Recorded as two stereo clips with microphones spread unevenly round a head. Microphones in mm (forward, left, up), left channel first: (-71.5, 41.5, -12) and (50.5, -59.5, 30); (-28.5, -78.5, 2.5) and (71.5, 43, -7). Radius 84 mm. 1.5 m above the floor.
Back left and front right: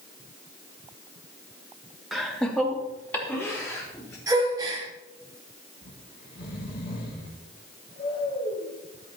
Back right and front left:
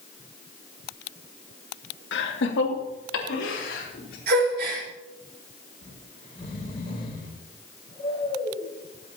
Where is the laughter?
125° right, 2.0 m; by 4.2 s 145° right, 5 m.